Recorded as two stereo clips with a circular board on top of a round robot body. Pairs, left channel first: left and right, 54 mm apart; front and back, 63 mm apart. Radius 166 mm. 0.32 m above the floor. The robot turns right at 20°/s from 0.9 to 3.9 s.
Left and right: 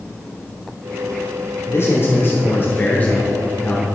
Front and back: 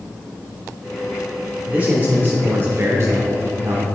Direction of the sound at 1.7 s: 115° left.